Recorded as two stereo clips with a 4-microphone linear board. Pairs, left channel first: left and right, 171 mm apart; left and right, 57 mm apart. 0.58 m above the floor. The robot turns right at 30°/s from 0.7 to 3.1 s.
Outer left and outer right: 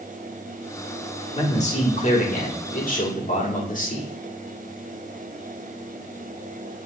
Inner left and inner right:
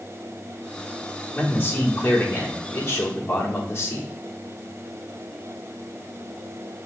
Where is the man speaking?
50° left, 1.3 m; by 4.1 s 105° left, 1.3 m.